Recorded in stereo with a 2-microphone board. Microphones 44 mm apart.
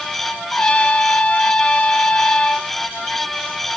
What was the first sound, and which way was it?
A trumpet, 25° left (ahead or behind).